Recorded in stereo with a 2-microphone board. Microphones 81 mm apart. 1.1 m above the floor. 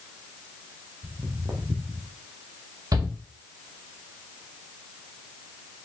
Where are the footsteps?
50° right (ahead or behind), 2.5 m; by 2.1 s 35° right (ahead or behind), 2.5 m.